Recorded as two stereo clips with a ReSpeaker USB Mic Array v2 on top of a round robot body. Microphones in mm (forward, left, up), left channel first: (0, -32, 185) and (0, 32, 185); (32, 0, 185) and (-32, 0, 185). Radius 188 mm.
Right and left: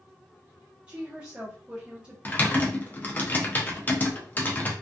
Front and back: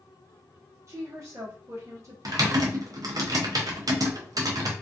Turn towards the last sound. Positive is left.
turn(degrees=-155)